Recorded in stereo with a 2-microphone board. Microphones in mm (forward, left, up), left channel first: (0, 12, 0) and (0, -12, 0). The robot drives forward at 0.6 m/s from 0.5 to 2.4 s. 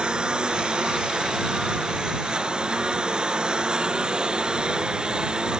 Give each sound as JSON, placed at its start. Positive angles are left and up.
{"t": 0.0, "sound": "a lawn mower", "side_deg": -45}